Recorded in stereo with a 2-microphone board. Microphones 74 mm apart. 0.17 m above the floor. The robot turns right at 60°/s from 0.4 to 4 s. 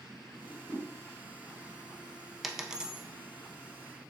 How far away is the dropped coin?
About 0.5 m.